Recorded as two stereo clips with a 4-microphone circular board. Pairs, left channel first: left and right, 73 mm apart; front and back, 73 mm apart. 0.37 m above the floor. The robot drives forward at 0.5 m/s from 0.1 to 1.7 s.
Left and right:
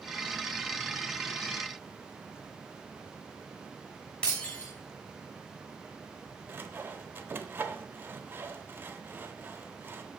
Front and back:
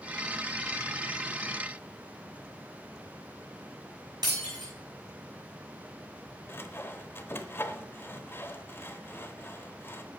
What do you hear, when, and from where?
4.2 s breaking glass: 165° left, 6.5 m
6.5 s sawing: 45° right, 0.9 m